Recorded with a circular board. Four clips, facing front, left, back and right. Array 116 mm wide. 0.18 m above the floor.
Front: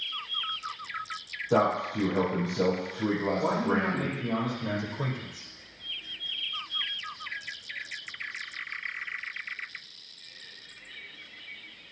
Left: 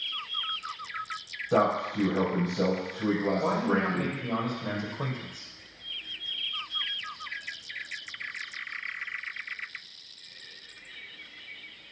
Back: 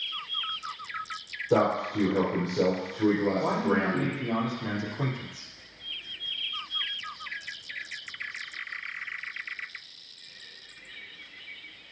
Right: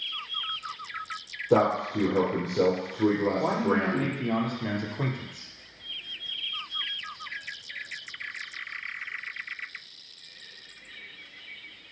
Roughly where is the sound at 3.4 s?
Right.